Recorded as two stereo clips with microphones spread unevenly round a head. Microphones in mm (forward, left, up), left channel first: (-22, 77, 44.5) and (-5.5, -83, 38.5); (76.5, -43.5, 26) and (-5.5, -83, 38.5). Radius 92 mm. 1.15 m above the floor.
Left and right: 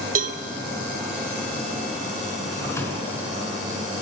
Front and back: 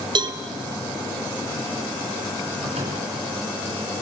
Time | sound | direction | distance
0.1 | a cowbell | 120° right | 1.0 m
2.5 | a drawer | 170° left | 4 m